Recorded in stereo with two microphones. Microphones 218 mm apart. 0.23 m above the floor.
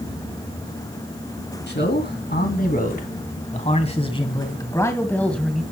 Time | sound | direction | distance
1.7 | a man speaking | 50° left (ahead or behind) | 2.5 m